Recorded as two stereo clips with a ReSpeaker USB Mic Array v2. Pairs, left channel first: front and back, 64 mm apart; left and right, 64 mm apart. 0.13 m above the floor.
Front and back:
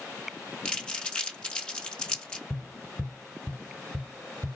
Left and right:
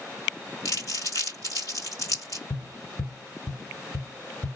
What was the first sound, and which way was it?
Crumpling, 70° left.